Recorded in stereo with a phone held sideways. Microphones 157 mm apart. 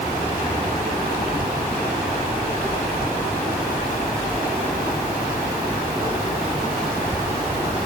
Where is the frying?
I don't hear frying.